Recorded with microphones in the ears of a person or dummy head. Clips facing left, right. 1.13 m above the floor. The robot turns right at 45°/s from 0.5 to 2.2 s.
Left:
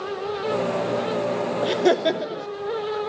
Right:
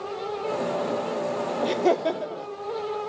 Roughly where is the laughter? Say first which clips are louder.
Left 3 dB; centre.